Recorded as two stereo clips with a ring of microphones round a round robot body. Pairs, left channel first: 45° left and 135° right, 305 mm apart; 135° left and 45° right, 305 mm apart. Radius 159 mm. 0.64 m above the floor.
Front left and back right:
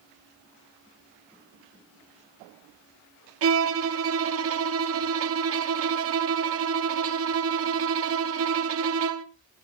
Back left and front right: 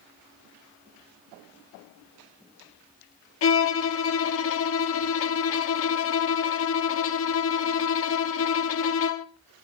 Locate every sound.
3.4 s a violin: straight behind, 0.9 m